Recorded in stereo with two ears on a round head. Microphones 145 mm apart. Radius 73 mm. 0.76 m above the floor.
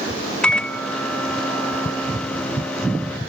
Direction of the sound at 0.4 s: 5° left (ahead or behind).